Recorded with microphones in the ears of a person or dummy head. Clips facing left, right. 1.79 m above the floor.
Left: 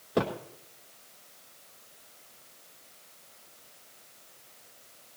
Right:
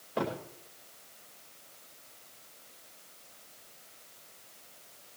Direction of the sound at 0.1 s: 60° left (ahead or behind).